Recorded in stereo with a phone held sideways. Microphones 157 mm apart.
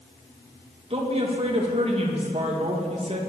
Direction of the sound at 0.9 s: 40° right (ahead or behind).